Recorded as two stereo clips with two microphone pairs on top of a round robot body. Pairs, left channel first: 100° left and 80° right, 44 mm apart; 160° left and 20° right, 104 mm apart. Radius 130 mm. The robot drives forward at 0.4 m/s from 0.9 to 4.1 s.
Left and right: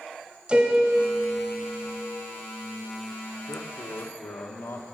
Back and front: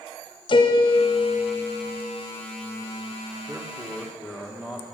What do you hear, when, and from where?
0.5 s a piano: 155° right, 0.9 m; by 2.0 s 165° right, 1.3 m
3.5 s a man speaking: 75° left, 1.4 m; by 4.8 s 85° left, 1.4 m